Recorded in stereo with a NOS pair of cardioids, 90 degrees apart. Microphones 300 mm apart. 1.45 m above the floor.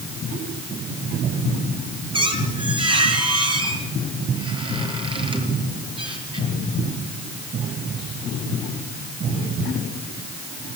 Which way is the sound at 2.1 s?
15° right.